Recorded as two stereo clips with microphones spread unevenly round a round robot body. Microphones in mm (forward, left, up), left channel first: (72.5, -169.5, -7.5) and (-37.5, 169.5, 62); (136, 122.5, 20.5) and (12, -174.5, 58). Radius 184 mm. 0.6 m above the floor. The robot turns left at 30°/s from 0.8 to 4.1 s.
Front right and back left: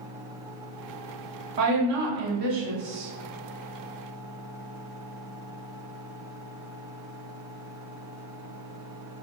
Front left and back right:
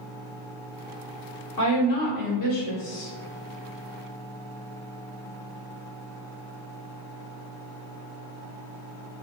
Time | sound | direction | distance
1.6 | a woman speaking | 105° left | 1.7 m